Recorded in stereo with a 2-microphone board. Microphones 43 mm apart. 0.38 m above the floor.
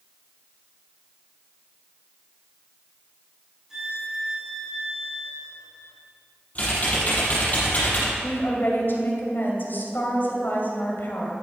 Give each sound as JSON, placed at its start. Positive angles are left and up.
{"t": 3.7, "sound": "a violin", "side_deg": -10, "distance_m": 3.0}
{"t": 6.5, "sound": "typing on a keyboard", "side_deg": 35, "distance_m": 4.5}
{"t": 8.2, "sound": "a woman speaking", "side_deg": 55, "distance_m": 2.5}